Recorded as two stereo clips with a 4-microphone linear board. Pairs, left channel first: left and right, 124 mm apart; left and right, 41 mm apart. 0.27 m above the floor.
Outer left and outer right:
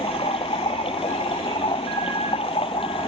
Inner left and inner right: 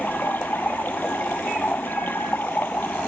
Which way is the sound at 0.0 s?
50° left (ahead or behind).